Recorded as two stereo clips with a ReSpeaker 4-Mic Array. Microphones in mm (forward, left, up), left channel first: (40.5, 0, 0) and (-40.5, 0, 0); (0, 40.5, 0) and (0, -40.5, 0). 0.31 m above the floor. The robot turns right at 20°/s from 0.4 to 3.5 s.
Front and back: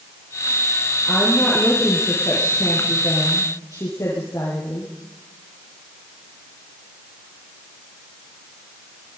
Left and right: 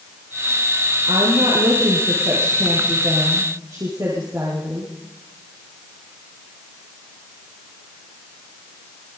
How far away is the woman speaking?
About 6 m.